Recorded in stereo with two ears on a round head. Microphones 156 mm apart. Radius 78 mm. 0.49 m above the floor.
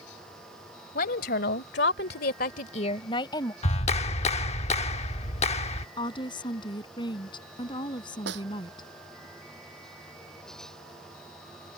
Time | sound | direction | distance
0.9 | a woman speaking | 55° left (ahead or behind) | ?
3.6 | a clap | 40° left (ahead or behind) | ?
6.0 | a woman speaking | 25° left (ahead or behind) | ?
8.3 | a snare drum | 75° right (ahead or behind) | ?